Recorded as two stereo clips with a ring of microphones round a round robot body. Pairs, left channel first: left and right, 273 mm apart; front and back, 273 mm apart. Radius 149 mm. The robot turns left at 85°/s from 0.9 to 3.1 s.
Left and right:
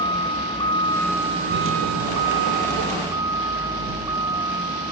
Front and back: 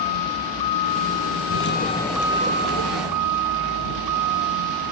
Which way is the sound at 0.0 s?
15° left.